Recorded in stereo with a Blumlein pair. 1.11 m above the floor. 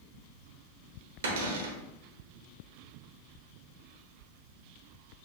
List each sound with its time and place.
1.2 s a cupboard door: 60° right, 0.9 m